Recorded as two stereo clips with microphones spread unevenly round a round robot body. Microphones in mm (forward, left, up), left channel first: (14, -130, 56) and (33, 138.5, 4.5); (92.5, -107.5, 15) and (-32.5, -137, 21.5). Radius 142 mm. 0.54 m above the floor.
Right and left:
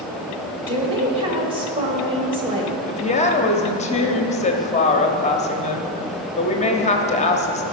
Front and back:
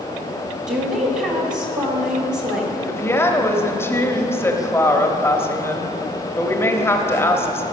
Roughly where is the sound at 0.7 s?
Behind left.